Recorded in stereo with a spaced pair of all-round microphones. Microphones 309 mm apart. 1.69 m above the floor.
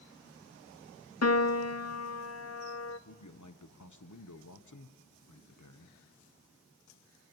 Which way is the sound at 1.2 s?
55° left (ahead or behind).